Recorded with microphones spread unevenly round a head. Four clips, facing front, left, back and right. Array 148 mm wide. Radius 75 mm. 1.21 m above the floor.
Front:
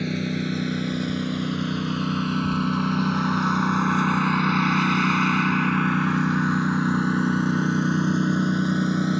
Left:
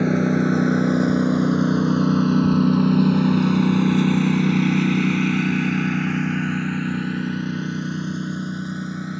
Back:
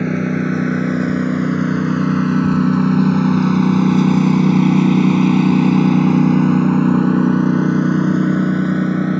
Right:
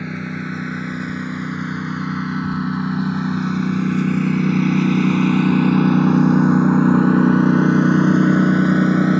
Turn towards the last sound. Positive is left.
turn(degrees=-115)